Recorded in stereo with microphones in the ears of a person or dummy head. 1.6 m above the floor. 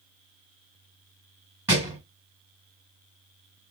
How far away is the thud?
About 1.7 m.